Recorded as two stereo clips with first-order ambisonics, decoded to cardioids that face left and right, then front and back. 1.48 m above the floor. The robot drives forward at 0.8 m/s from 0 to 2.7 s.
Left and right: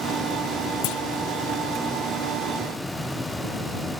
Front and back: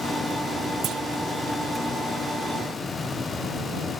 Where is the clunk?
120° left; by 1.0 s 130° left.